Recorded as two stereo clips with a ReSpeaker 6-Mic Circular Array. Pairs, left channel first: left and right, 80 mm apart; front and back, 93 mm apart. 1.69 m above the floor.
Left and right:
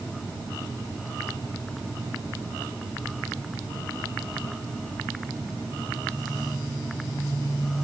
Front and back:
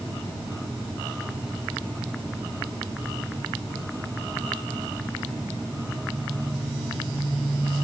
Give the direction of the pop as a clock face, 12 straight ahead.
I don't hear a pop.